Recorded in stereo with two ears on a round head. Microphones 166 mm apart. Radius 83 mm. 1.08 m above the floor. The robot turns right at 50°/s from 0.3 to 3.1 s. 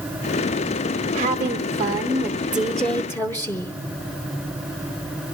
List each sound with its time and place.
1.1 s a woman speaking: 80° right, 0.8 m; by 3.7 s 20° left, 0.8 m